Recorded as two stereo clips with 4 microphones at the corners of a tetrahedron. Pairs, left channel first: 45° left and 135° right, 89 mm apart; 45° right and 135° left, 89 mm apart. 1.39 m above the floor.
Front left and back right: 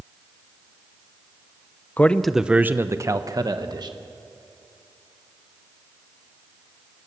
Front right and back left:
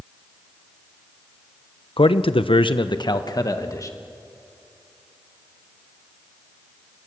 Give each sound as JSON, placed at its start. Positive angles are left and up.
{"t": 2.0, "sound": "a man speaking", "azimuth_deg": -25, "distance_m": 0.7}